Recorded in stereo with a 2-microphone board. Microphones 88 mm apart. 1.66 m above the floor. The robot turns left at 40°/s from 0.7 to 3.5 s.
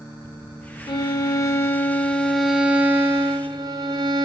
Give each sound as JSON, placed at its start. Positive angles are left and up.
{"t": 0.9, "sound": "a violin", "azimuth_deg": 60, "distance_m": 0.6}